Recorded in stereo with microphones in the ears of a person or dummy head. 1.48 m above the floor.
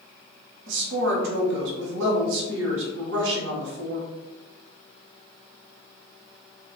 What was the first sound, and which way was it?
A woman speaking, 80° right.